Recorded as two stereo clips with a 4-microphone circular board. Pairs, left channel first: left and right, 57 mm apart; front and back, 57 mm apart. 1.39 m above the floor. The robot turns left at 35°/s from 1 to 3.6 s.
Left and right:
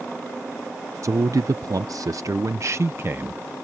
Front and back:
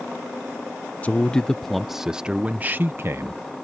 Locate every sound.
1.0 s a man speaking: 65° right; by 3.4 s 150° right